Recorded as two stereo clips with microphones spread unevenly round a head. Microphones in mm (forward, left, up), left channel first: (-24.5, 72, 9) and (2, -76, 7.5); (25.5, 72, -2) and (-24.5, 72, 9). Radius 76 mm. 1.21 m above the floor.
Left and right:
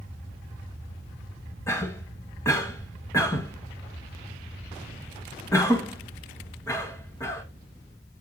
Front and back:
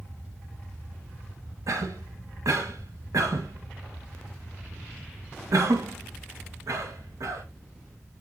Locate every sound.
1.7 s a cough: 170° left, 1.9 m